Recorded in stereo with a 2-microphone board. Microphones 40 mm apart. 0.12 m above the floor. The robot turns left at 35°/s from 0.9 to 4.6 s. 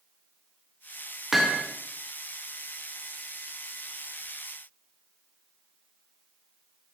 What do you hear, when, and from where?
1.3 s hammering: 5° right (ahead or behind), 8 m; by 1.6 s 15° right (ahead or behind), 8 m